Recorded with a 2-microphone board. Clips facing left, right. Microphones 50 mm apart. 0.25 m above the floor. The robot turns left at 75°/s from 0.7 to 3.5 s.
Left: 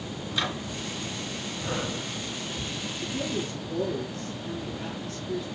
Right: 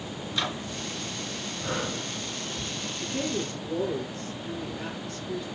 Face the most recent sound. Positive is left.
turn(degrees=-145)